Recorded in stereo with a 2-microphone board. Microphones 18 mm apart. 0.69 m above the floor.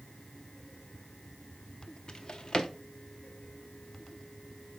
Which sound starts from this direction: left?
A drawer, at 2.1 s.